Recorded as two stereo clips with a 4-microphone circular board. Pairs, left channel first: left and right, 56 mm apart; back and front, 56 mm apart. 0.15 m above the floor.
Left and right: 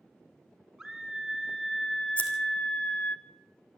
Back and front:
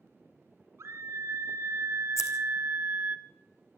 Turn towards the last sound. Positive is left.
turn(degrees=155)